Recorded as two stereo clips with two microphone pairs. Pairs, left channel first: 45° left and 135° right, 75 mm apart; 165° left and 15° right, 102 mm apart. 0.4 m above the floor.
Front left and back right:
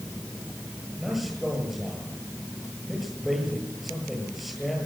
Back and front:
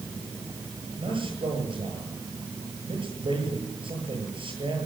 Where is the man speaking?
45° right, 9.5 m.